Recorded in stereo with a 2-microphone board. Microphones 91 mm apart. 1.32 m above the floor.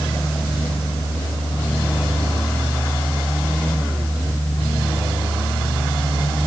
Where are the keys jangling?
No keys jangling in this recording.